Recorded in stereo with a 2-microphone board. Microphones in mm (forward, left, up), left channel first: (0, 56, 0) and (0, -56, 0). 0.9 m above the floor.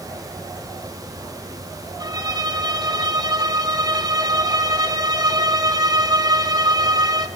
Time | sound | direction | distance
2.0 | a violin | 35° right (ahead or behind) | 1.3 m